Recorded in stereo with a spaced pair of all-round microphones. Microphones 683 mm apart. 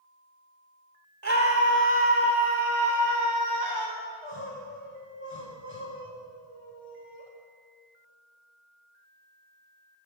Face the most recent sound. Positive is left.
turn(degrees=-45)  # may be behind; listen again after turning